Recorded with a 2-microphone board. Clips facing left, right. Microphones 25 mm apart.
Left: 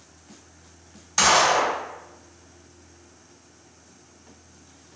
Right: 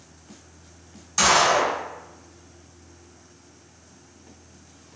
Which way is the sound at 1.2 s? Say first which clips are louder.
Even; 20° left (ahead or behind).